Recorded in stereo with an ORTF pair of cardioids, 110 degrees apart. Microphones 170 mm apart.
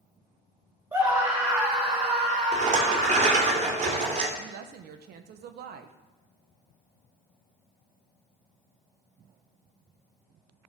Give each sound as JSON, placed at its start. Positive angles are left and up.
{"t": 0.9, "sound": "a scream", "azimuth_deg": -15, "distance_m": 4.0}
{"t": 2.5, "sound": "a rattle", "azimuth_deg": -45, "distance_m": 2.5}
{"t": 4.4, "sound": "a woman speaking", "azimuth_deg": -70, "distance_m": 1.1}